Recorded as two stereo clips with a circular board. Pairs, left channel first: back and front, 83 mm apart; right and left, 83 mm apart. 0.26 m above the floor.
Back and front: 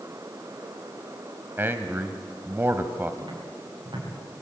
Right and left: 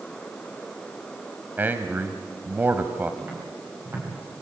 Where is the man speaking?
45° left, 1.1 m.